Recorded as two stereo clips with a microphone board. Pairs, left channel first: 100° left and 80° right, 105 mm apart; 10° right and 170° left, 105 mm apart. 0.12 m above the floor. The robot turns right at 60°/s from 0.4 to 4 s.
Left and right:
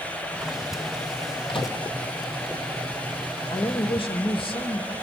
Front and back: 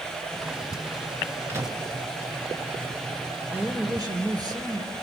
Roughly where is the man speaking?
Left.